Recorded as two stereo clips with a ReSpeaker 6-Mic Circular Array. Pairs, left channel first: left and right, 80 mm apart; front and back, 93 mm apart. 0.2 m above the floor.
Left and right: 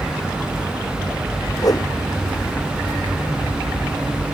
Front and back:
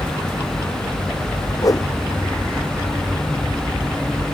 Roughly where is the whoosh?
Ahead left.